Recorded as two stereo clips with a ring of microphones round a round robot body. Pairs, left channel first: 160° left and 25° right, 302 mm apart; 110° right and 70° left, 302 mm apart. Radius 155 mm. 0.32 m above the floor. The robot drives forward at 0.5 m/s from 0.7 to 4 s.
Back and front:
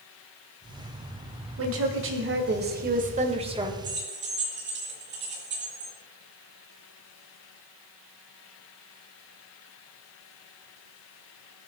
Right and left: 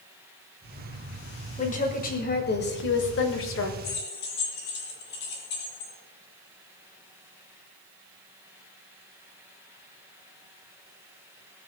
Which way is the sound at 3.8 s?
75° right.